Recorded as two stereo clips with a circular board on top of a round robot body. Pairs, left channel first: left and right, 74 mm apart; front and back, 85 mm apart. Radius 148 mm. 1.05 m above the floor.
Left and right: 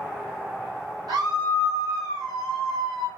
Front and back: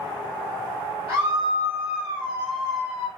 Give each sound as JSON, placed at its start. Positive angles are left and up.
{"t": 1.1, "sound": "a scream", "azimuth_deg": -100, "distance_m": 2.0}